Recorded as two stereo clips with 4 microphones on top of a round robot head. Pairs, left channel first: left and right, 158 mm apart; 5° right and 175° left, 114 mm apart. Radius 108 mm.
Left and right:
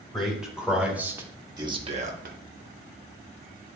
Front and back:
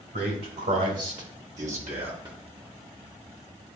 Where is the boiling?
I don't hear boiling.